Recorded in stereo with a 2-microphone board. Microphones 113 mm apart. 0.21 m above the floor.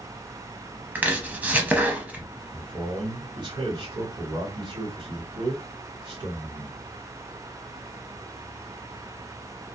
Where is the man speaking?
40° right (ahead or behind), 1.9 m.